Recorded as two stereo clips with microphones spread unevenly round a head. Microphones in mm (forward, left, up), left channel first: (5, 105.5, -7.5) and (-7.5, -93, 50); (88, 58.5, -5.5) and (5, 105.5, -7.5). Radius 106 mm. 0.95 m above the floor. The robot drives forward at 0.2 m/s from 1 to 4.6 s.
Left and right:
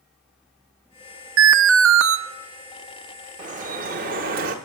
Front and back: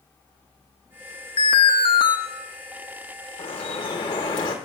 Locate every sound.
1.4 s an alarm: 70° right, 0.6 m; by 2.2 s 85° right, 0.5 m
3.4 s dripping: 60° right, 0.9 m; by 4.5 s 75° right, 0.8 m